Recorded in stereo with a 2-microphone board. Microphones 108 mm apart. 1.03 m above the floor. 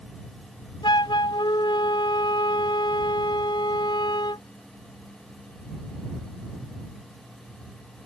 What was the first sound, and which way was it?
A flute, 50° left (ahead or behind).